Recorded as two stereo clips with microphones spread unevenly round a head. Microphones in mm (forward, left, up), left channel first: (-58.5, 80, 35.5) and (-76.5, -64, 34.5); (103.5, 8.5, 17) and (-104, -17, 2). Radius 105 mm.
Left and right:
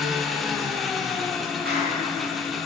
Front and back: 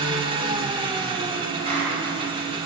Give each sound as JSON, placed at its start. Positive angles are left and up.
{"t": 0.0, "sound": "an engine running", "azimuth_deg": 170, "distance_m": 0.8}
{"t": 1.6, "sound": "a clap", "azimuth_deg": -110, "distance_m": 4.5}